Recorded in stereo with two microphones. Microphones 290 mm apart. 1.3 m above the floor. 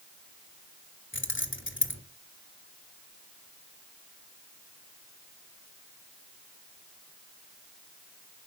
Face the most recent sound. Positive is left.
turn(degrees=40)  # may be behind; listen again after turning